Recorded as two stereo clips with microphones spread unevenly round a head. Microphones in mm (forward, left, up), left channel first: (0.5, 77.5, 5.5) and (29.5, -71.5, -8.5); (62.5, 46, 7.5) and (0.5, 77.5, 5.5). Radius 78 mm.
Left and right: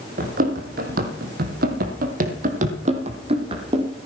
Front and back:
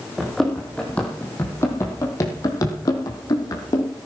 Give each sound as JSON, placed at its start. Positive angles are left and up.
{"t": 0.2, "sound": "running footsteps", "azimuth_deg": -115, "distance_m": 3.0}